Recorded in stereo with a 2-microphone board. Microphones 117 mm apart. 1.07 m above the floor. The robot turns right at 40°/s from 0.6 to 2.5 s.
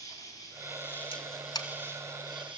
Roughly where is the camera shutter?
Left.